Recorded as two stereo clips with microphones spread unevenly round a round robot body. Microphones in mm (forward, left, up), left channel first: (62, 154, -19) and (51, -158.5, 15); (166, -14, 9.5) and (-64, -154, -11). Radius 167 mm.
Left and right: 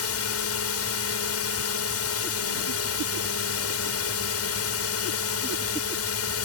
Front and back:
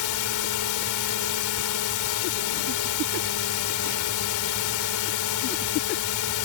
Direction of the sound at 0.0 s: 50° left.